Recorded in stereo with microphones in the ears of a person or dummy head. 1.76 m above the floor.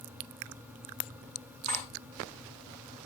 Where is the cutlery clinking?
40° right (ahead or behind), 9.5 m.